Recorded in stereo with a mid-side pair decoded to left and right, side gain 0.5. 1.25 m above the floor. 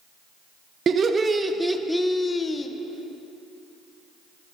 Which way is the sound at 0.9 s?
45° right.